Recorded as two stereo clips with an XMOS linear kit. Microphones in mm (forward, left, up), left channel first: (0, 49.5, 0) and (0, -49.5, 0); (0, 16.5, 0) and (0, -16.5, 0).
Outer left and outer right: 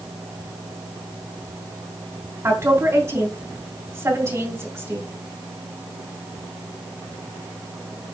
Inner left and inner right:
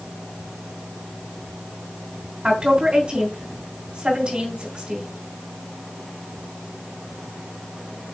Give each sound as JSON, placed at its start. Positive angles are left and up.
{"t": 2.4, "sound": "a woman speaking", "side_deg": -30, "distance_m": 3.5}